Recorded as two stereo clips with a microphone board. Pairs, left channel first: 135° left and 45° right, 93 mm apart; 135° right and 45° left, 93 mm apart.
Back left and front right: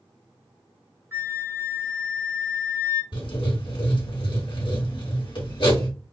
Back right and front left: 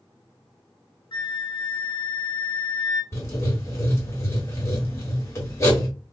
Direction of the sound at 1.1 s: 110° right.